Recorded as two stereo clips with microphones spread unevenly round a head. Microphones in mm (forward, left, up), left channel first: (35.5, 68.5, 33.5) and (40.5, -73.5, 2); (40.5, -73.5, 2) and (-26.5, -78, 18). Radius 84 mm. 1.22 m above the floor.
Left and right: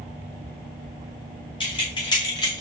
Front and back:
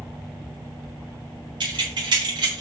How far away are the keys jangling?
About 2.5 m.